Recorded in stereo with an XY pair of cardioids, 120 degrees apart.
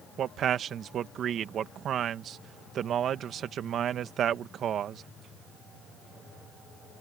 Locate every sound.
0.2 s a man speaking: 55° right